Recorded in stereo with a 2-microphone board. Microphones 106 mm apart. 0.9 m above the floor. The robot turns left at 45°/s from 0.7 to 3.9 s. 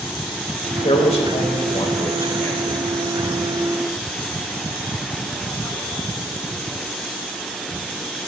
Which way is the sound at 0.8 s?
95° left.